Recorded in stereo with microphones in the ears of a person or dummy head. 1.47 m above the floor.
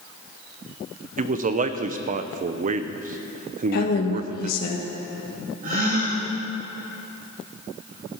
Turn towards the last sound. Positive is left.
turn(degrees=-40)  # may be behind; listen again after turning